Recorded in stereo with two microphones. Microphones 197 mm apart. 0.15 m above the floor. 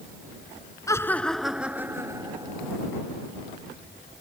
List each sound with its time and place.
0.9 s laughter: 15° left (ahead or behind); by 2.8 s 25° right (ahead or behind)